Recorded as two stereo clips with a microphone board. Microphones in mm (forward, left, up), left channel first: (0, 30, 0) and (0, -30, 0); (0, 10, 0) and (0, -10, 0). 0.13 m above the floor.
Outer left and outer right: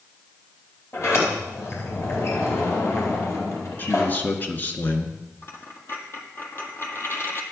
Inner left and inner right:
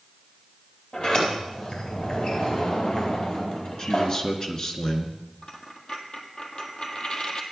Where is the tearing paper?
I don't hear tearing paper.